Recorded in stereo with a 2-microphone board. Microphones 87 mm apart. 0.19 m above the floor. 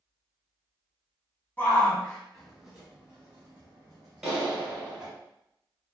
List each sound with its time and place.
1.6 s a shout: 25° left (ahead or behind), 1.2 m; by 5.1 s 50° right (ahead or behind), 1.7 m
4.2 s a clap: 5° right (ahead or behind), 1.4 m